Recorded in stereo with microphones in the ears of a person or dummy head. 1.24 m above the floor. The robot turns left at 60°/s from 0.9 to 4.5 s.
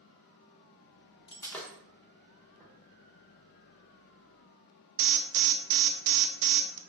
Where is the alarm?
70° right (ahead or behind), 0.5 m.